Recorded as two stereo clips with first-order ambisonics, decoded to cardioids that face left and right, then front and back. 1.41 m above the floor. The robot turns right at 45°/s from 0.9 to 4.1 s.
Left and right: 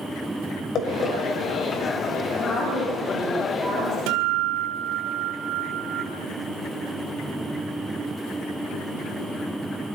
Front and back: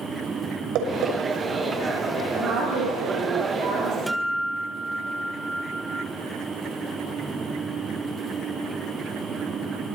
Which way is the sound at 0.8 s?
140° left.